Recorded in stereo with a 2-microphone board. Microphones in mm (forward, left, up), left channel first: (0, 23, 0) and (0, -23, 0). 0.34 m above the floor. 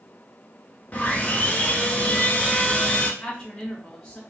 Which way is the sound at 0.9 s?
35° left (ahead or behind).